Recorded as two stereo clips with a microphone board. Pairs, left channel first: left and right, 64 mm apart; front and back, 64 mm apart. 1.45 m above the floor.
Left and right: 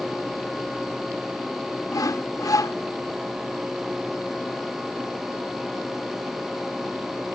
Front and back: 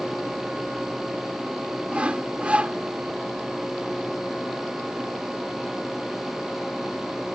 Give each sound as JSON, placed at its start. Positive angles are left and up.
{"t": 1.9, "sound": "sawing", "azimuth_deg": 110}